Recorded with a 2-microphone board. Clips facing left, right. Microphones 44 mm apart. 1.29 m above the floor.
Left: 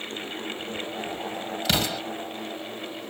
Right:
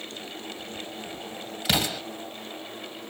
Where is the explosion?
5° right (ahead or behind), 1.9 m.